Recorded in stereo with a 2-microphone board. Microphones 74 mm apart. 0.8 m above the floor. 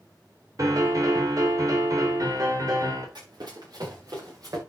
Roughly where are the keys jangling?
I don't hear keys jangling.